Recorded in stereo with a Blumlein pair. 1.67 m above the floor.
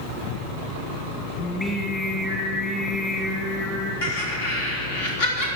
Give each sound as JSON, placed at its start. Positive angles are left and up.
{"t": 1.4, "sound": "singing", "azimuth_deg": 15, "distance_m": 2.0}
{"t": 4.0, "sound": "laughter", "azimuth_deg": 65, "distance_m": 3.5}